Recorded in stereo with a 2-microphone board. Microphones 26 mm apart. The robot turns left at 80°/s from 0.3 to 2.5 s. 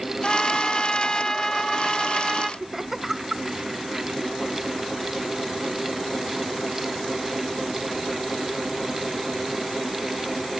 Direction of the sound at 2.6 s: 20° right (ahead or behind).